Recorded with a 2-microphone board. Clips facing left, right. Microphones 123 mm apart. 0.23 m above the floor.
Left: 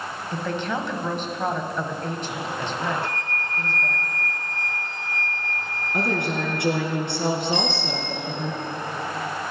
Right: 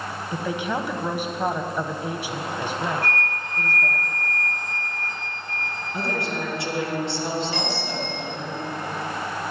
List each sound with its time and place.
0.3 s a woman speaking: 10° right (ahead or behind), 1.1 m
3.0 s a flute: 15° left (ahead or behind), 3 m
5.9 s a woman speaking: 60° left (ahead or behind), 3 m
7.5 s a bicycle bell: 20° left (ahead or behind), 3.5 m